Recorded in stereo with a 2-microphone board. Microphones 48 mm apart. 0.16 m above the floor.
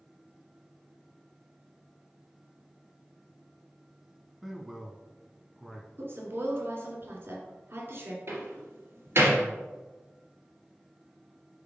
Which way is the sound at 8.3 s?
60° right (ahead or behind).